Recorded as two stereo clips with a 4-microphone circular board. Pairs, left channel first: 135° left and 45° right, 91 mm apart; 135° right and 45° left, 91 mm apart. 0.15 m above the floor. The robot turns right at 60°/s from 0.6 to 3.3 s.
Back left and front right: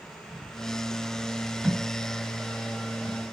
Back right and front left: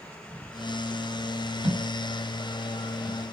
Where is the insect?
25° left, 3 m; by 3.3 s 175° right, 3 m.